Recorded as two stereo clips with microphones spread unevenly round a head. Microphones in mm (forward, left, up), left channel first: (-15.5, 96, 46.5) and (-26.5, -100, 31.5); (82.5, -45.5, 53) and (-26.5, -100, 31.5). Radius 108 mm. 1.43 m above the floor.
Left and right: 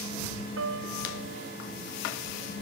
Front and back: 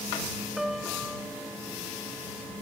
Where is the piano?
65° right.